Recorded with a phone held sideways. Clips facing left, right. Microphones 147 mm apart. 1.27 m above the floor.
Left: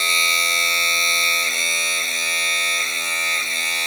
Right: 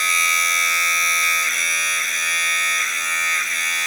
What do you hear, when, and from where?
0.0 s a machine running: 25° left (ahead or behind)